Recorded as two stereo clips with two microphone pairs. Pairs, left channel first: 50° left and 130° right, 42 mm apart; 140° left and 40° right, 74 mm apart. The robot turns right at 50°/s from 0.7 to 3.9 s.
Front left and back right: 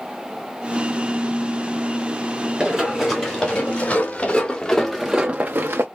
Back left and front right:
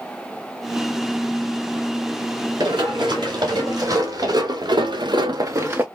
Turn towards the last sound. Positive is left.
turn(degrees=-105)